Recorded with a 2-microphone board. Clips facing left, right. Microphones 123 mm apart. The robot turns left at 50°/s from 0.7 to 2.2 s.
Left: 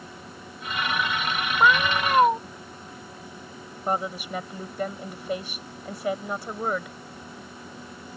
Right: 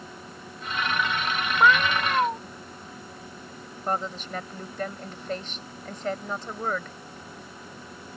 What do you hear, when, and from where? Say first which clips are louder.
1.6 s a cat meowing: even; 175° left; by 2.4 s 145° left
3.9 s a woman speaking: left 2 dB; 10° left (ahead or behind)